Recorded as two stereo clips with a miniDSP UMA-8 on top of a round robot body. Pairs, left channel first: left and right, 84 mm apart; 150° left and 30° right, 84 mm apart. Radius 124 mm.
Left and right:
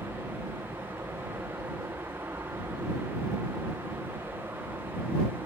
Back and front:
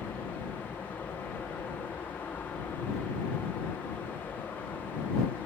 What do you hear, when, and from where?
0.0 s an aircraft: 145° right